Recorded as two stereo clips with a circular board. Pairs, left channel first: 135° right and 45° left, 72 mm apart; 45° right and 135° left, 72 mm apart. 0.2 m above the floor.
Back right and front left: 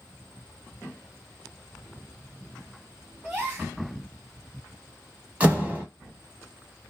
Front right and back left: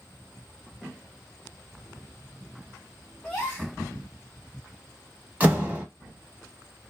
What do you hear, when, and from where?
3.2 s a gasp: straight ahead, 1.6 m
5.4 s a door slam: 90° left, 1.0 m